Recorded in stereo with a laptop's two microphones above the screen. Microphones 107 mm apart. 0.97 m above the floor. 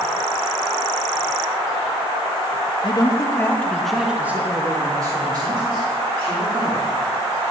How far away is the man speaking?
About 0.9 m.